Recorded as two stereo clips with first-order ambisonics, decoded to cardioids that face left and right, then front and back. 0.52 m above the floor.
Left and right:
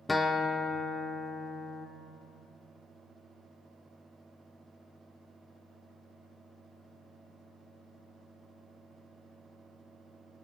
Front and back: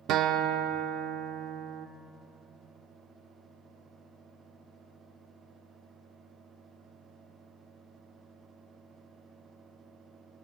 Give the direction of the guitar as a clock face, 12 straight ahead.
6 o'clock.